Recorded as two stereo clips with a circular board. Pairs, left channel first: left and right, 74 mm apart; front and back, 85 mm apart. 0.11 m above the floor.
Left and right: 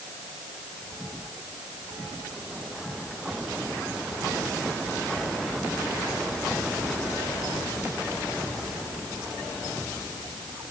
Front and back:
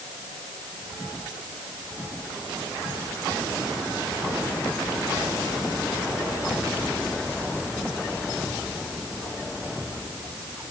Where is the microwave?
I don't hear a microwave.